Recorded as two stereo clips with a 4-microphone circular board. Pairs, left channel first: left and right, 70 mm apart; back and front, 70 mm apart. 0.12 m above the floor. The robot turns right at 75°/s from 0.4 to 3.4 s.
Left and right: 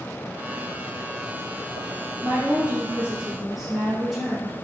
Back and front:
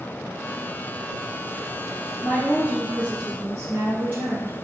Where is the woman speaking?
105° right, 1.1 m; by 4.5 s 15° right, 1.1 m.